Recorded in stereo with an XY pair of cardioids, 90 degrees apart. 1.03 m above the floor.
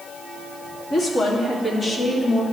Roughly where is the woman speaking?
Ahead left.